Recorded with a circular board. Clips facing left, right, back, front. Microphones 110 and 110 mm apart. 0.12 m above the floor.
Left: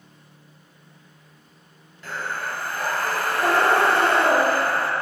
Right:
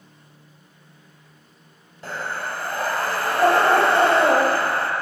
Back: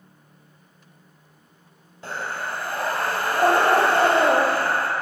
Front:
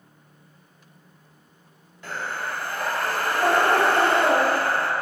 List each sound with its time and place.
2.0 s breathing: 135° right, 1.2 m